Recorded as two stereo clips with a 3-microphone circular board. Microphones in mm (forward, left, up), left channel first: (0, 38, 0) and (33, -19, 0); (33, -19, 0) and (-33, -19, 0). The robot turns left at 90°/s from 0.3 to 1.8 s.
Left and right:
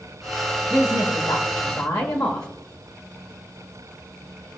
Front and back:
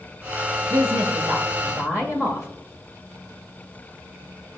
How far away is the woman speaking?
About 1.2 m.